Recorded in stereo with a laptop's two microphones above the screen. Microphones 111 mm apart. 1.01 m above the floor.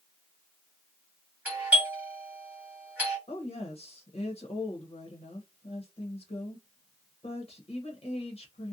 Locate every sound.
1.4 s a doorbell: 10° right (ahead or behind), 1.4 m
3.3 s a woman speaking: 60° left (ahead or behind), 0.8 m